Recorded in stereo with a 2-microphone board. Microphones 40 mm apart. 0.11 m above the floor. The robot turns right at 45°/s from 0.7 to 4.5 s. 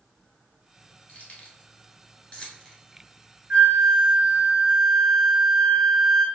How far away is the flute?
About 0.9 m.